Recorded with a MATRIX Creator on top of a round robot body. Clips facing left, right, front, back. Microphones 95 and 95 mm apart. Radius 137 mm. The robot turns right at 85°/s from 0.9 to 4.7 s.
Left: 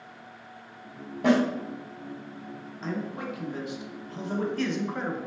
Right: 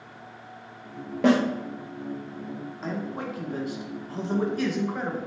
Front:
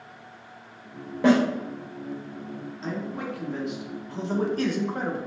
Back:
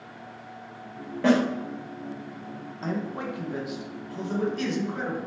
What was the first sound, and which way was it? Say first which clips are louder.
A snare drum: right 2 dB, front 2 dB; 75° right.